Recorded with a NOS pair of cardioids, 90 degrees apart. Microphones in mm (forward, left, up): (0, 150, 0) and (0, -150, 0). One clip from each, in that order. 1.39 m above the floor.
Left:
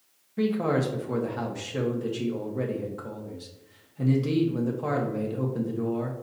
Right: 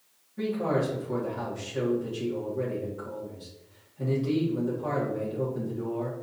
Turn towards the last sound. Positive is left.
turn(degrees=55)